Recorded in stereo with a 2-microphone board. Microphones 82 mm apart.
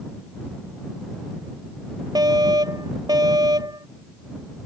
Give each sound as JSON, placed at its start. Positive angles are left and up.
{"t": 2.1, "sound": "a fire alarm", "side_deg": -50}